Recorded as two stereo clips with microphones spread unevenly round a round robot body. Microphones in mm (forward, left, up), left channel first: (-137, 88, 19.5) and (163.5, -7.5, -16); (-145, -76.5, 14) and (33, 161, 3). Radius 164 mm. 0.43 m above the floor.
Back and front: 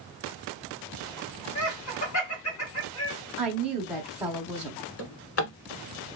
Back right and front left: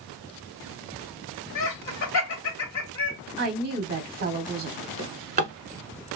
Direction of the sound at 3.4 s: 55° left.